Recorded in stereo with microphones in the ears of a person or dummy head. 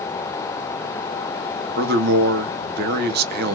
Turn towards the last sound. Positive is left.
turn(degrees=-50)  # may be behind; listen again after turning